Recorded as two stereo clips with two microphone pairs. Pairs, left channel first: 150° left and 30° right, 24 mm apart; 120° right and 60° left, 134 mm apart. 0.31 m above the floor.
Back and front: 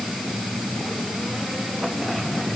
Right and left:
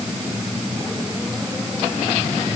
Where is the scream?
I don't hear a scream.